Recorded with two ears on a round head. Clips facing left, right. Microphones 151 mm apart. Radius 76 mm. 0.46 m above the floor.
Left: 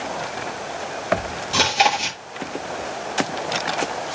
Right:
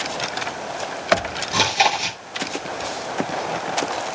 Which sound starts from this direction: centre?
Chewing, at 1.5 s.